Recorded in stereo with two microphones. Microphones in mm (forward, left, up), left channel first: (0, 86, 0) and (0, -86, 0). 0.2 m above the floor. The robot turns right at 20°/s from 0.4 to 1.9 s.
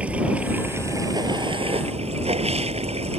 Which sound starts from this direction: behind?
Running water, at 0.0 s.